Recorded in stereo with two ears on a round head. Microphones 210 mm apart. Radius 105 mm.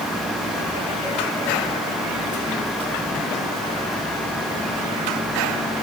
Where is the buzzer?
No buzzer in this recording.